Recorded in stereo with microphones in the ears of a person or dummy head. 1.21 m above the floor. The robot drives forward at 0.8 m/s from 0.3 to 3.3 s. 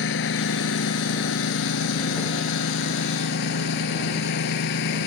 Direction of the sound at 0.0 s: 70° left (ahead or behind).